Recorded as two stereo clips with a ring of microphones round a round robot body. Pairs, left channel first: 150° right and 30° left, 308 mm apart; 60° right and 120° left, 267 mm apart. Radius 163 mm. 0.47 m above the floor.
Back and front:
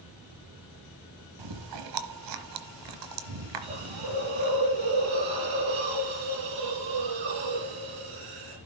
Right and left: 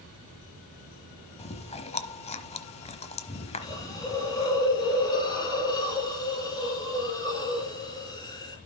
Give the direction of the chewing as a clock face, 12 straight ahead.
12 o'clock.